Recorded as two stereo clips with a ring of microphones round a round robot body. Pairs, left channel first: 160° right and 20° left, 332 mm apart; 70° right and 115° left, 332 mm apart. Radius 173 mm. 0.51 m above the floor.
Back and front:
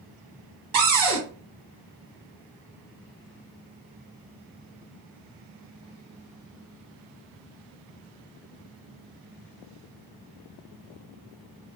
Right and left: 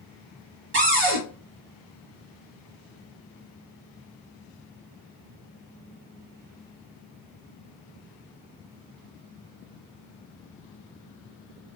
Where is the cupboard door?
60° left, 1.4 m.